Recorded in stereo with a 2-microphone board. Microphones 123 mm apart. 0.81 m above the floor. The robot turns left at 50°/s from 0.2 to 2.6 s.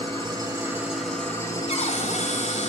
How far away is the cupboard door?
About 3.5 m.